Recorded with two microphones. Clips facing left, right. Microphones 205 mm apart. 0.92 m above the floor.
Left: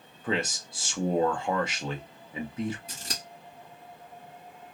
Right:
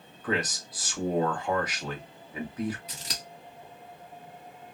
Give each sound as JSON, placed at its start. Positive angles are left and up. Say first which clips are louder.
{"t": 0.2, "sound": "a man speaking", "louder": "even", "side_deg": 25, "distance_m": 0.9}
{"t": 2.9, "sound": "scissors", "louder": "left 1 dB", "side_deg": 45, "distance_m": 1.6}